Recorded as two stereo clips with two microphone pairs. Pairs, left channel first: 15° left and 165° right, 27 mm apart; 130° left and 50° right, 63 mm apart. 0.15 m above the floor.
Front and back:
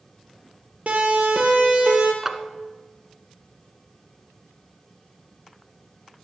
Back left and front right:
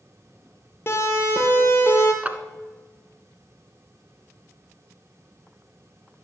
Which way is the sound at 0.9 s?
175° left.